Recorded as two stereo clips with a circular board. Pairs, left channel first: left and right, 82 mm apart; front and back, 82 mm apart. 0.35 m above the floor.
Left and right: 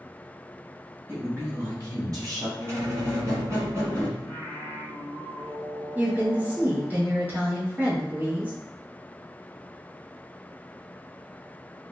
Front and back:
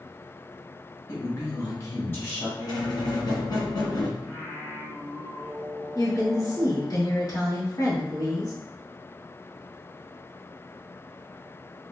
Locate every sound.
1.1 s a woman speaking: 35° right, 2 m; by 2.5 s 60° right, 2 m
2.6 s a squeak: 35° right, 2 m
4.2 s singing: 55° right, 1.9 m
6.0 s a woman speaking: 25° right, 1.9 m